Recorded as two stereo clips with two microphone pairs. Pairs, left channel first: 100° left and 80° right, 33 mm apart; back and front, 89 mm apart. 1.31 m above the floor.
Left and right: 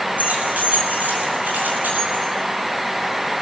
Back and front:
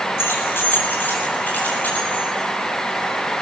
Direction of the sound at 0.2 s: 115° right.